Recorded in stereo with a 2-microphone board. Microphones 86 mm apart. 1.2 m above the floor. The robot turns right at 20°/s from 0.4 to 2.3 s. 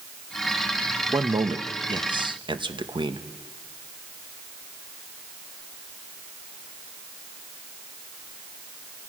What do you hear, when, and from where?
1.1 s a man speaking: 45° right (ahead or behind), 1.1 m; by 3.2 s 70° right (ahead or behind), 1.1 m